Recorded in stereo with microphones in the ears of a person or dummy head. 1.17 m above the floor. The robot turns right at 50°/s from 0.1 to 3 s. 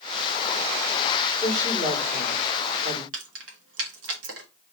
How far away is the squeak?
No squeak in this recording.